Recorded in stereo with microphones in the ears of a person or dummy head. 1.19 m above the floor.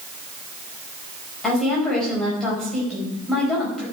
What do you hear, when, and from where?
1.4 s a woman speaking: 5° left (ahead or behind), 5 m